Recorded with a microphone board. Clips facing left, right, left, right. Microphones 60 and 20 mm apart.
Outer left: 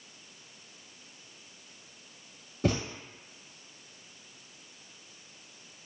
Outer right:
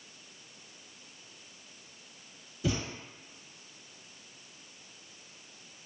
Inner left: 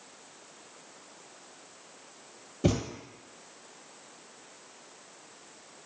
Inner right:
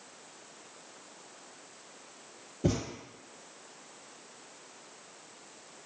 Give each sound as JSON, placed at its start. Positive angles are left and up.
{"t": 2.6, "sound": "a thud", "side_deg": 55, "distance_m": 0.6}